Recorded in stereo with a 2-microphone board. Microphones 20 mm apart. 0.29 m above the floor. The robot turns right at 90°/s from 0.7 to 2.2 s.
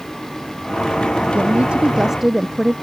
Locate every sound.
1.4 s a woman speaking: 85° right; by 2.7 s 10° right